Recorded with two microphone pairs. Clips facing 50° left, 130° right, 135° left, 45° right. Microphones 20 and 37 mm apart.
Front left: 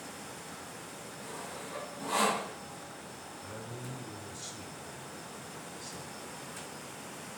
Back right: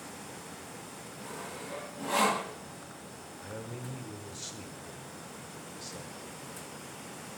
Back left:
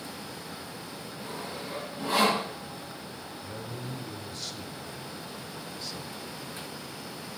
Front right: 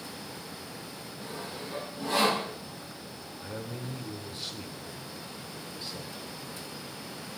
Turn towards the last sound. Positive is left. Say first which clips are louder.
# back right 3 dB, front right 2 dB
turn(degrees=-95)